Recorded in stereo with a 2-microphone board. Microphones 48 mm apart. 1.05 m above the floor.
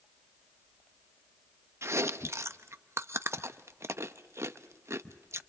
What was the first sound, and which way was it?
Chewing, 70° right (ahead or behind).